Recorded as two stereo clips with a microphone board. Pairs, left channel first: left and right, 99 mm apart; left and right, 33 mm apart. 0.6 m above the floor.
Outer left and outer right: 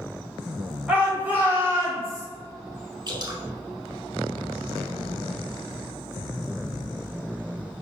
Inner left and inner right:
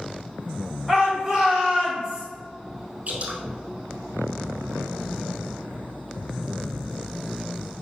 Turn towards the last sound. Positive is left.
turn(degrees=-45)  # may be behind; listen again after turning